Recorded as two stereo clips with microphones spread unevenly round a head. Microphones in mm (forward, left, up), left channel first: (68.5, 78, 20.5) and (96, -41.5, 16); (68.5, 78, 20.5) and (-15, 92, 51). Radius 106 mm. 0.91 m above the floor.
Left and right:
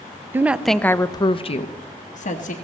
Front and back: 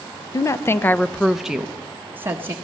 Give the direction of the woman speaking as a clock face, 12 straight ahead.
12 o'clock.